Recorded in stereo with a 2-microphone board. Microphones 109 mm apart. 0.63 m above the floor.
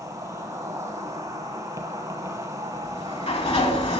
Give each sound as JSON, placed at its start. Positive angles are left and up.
{"t": 0.0, "sound": "an insect", "side_deg": -35, "distance_m": 1.2}
{"t": 2.8, "sound": "a sliding door", "side_deg": 70, "distance_m": 1.4}